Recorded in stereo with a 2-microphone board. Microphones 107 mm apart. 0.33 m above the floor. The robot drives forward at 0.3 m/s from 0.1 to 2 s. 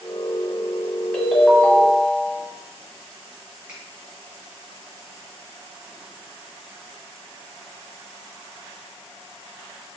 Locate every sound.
1.1 s a ringtone: 10° left (ahead or behind), 1.3 m
3.7 s a finger snap: 10° right (ahead or behind), 1.9 m